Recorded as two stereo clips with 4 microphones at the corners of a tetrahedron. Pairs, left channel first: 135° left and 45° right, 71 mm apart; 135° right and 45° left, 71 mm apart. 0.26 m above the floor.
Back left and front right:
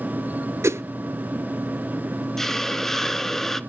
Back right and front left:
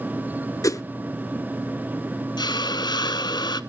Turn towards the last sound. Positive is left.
turn(degrees=-140)